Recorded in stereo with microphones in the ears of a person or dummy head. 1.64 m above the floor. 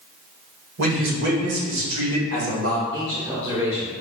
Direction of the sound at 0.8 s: 75° right (ahead or behind).